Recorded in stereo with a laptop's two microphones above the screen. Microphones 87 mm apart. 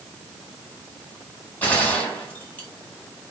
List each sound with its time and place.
1.6 s a gunshot: 15° left (ahead or behind), 1.4 m